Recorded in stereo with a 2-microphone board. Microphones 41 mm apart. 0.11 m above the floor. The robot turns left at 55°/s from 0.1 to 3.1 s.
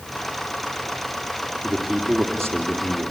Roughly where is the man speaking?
Behind right.